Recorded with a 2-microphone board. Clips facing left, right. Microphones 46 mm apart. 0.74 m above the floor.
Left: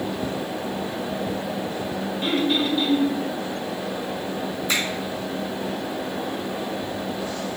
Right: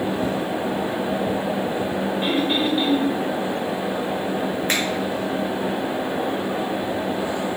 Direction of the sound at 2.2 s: 25° right (ahead or behind).